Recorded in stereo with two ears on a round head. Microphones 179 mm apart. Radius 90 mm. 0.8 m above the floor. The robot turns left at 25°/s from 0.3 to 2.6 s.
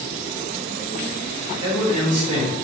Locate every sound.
1.6 s a man speaking: 25° right (ahead or behind), 2 m; by 2.5 s 50° right (ahead or behind), 2 m